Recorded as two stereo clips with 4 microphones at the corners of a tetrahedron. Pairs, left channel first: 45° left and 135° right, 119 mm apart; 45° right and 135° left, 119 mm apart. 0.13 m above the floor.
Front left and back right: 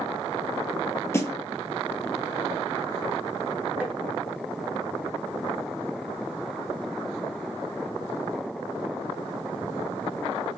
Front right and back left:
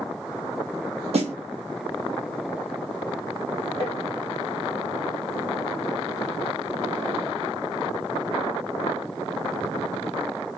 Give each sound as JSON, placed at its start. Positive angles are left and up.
{"t": 1.1, "sound": "a snare drum", "azimuth_deg": 115, "distance_m": 0.7}
{"t": 3.8, "sound": "tapping", "azimuth_deg": 150, "distance_m": 1.2}